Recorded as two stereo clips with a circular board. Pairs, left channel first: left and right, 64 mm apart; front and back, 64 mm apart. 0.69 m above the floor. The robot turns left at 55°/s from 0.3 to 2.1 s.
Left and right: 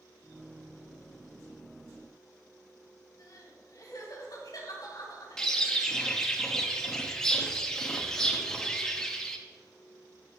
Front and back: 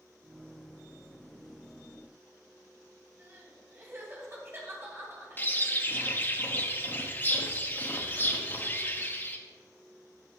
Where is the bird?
20° left, 1.0 m.